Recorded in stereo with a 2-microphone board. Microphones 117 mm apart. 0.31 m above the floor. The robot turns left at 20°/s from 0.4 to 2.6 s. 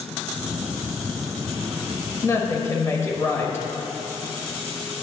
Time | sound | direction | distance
2.2 | a woman speaking | 20° left (ahead or behind) | 1.1 m